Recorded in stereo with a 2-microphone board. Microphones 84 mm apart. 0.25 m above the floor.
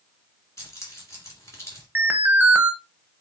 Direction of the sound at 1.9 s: 20° right (ahead or behind).